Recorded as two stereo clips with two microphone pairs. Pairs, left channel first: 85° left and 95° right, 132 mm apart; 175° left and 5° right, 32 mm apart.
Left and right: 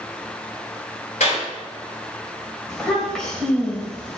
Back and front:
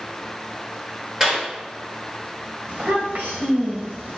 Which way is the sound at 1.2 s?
60° left.